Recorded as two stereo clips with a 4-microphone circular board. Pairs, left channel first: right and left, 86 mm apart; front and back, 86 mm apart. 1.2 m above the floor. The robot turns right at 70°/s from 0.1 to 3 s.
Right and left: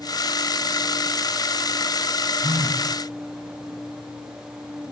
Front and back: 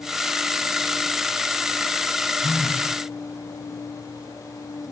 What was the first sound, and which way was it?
A phone buzzing, 60° left.